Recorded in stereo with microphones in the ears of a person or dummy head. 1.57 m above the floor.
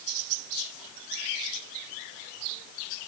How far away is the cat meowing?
I don't hear a cat meowing.